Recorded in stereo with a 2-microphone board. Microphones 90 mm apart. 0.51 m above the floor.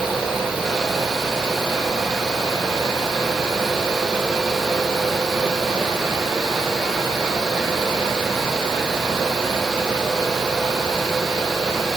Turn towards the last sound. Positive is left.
No sound to turn to.